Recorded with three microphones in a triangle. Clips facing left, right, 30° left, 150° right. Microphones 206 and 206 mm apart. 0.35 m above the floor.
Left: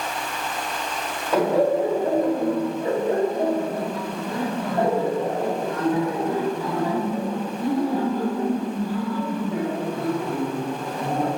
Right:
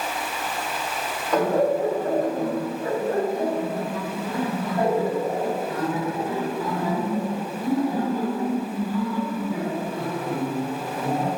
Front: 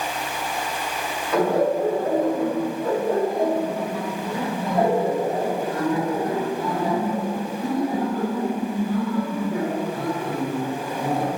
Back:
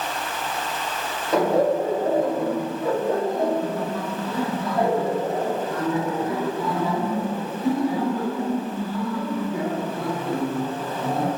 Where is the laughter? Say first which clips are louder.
Left 1 dB, back 1 dB; 170° left, 1.8 m; by 11.3 s 55° left, 5 m.